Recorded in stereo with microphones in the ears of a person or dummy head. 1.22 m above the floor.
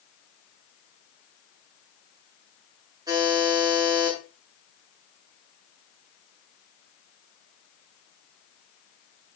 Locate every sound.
3.1 s a buzzer: 20° right (ahead or behind), 9 m